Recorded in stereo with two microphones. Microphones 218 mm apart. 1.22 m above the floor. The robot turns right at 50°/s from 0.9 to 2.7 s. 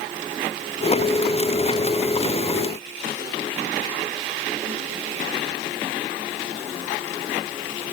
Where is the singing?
No singing in this recording.